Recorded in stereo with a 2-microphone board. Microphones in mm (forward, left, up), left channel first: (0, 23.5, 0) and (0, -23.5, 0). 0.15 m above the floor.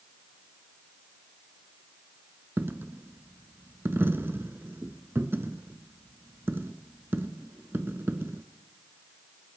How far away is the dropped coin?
About 0.6 m.